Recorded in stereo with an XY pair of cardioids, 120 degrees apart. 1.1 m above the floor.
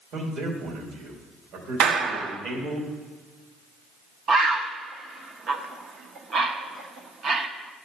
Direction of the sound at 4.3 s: 45° right.